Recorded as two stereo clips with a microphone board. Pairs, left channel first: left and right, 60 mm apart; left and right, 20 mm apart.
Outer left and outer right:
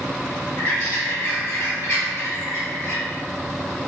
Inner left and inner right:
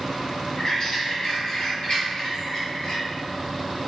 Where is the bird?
60° left (ahead or behind), 1.5 m.